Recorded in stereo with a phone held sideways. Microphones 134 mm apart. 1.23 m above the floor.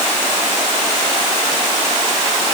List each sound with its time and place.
Only background noise.